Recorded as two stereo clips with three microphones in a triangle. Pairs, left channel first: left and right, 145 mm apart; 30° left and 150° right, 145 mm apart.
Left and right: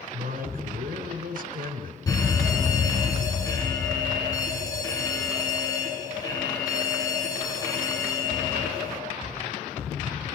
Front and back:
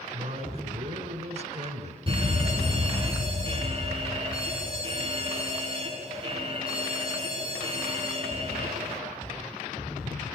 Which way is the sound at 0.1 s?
110° right.